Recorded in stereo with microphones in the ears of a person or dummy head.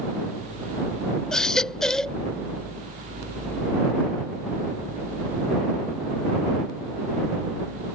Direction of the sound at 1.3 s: 5° left (ahead or behind).